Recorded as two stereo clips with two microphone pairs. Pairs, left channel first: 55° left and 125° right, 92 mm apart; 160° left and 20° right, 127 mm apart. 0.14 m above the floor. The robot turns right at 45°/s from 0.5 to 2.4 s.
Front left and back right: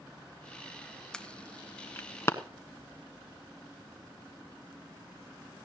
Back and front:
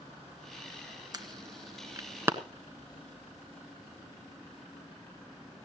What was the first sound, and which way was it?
An alarm, 20° right.